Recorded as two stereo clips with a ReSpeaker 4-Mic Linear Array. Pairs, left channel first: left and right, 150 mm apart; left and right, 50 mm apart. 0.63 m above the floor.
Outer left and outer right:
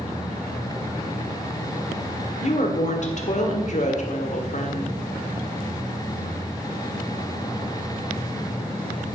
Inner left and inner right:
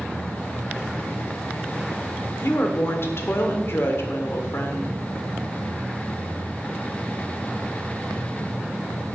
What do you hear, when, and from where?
2.4 s a woman speaking: 55° left (ahead or behind), 1.6 m